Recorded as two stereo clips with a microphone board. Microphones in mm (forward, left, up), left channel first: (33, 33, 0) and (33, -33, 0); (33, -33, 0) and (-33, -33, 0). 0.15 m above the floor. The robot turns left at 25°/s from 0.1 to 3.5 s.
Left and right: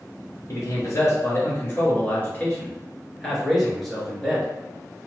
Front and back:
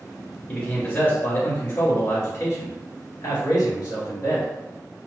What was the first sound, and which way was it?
A man speaking, 75° left.